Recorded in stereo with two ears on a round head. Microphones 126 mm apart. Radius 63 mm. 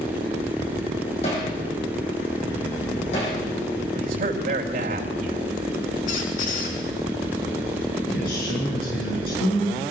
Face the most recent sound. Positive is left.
turn(degrees=70)  # may be behind; listen again after turning